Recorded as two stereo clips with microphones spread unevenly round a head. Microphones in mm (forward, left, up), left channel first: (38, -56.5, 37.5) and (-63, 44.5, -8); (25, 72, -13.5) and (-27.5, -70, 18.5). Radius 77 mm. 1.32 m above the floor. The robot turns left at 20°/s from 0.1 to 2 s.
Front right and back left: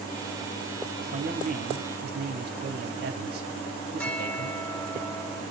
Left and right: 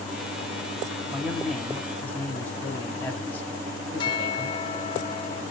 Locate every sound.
1.1 s a man speaking: 170° left, 2.5 m; by 5.0 s 150° left, 2.5 m
4.0 s a bell: 10° left, 1.3 m